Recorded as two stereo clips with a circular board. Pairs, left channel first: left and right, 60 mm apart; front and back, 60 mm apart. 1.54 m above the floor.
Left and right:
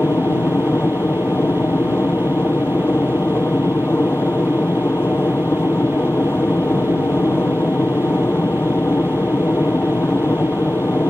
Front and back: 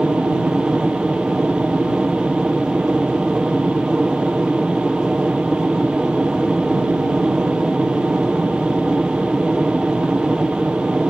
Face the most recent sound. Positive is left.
turn(degrees=110)